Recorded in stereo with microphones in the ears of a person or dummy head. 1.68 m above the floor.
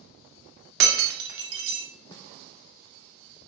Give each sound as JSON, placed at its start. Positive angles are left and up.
{"t": 0.8, "sound": "breaking glass", "side_deg": -60, "distance_m": 2.0}
{"t": 2.1, "sound": "a snare drum", "side_deg": 25, "distance_m": 0.8}